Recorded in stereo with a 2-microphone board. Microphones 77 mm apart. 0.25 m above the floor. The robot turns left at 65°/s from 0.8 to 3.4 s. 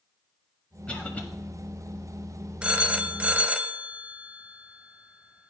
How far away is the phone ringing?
About 0.5 m.